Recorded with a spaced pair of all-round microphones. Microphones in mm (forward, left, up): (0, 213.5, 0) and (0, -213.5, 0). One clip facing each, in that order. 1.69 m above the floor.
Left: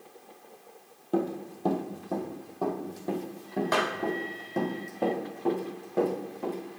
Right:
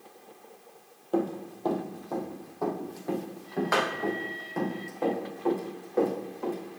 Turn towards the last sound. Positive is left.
turn(degrees=45)  # may be behind; listen again after turning